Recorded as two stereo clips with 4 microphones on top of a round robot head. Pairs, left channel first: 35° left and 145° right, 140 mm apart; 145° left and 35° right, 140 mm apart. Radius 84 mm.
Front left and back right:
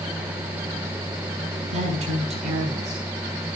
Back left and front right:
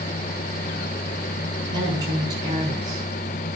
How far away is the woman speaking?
About 5.5 m.